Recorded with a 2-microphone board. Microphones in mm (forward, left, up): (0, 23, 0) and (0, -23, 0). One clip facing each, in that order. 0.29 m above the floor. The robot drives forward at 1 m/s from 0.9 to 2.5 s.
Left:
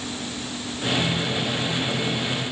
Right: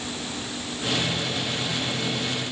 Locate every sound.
Only background noise.